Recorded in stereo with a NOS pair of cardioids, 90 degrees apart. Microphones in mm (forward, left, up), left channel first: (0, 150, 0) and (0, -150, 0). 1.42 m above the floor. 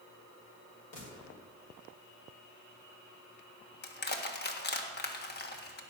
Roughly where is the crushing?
Ahead left.